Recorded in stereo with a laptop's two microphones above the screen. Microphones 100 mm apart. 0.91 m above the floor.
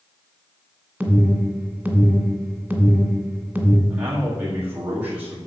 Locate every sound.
1.0 s an alarm: 15° right (ahead or behind), 2 m
3.9 s a man speaking: 20° right (ahead or behind), 1.9 m